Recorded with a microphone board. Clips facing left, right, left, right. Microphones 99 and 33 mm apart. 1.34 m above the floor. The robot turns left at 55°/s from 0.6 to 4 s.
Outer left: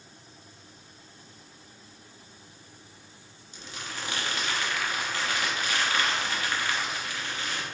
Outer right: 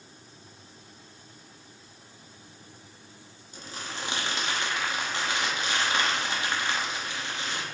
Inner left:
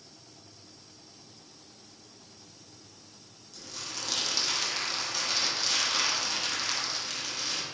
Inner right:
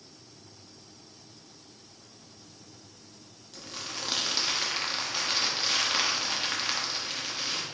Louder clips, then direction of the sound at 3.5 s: Outer right 1 dB, inner right 2 dB; 45° right (ahead or behind).